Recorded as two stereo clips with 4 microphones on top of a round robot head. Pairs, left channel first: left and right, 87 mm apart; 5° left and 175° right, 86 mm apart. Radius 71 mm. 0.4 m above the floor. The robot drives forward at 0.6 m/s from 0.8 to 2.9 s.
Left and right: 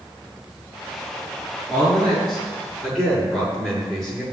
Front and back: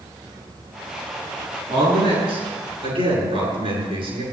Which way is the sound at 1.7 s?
Straight behind.